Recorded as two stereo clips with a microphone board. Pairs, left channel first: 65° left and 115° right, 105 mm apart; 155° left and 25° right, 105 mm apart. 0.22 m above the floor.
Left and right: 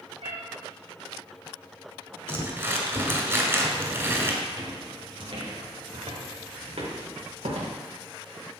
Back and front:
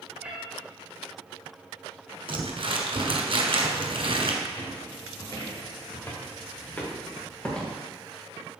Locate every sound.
0.2 s a cat meowing: 100° right, 4 m
2.3 s crumpling: 50° right, 1.6 m
4.4 s footsteps: 160° right, 3 m; by 7.8 s 120° right, 3.5 m